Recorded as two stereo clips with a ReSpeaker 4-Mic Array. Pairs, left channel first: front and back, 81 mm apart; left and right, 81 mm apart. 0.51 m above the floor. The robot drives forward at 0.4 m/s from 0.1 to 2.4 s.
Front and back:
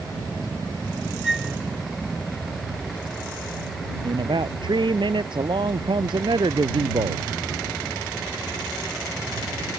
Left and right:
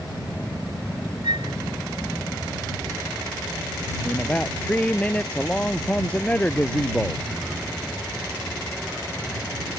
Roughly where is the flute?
Right.